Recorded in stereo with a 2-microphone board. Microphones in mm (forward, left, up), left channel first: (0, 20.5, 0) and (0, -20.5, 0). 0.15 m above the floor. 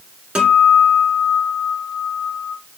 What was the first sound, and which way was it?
A guitar, 20° right (ahead or behind).